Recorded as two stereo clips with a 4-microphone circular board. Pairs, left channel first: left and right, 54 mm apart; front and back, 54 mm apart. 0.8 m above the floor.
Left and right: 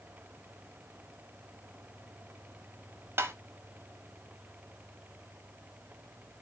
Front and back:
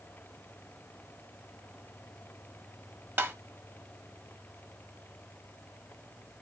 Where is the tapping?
130° right, 1.2 m.